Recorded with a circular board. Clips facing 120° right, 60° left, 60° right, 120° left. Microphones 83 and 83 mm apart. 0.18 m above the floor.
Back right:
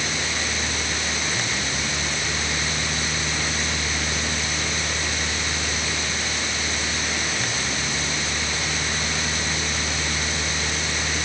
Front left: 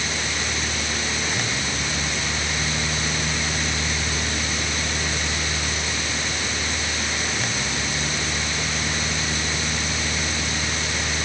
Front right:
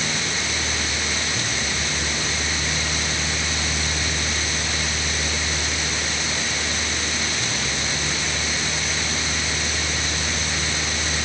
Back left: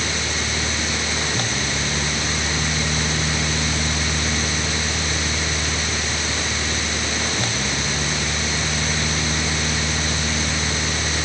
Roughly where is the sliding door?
I don't hear a sliding door.